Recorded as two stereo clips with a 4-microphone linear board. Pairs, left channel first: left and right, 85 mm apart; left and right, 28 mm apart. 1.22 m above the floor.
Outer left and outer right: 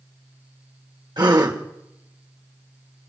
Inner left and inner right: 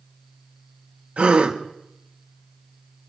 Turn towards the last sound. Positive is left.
turn(degrees=-55)  # may be behind; listen again after turning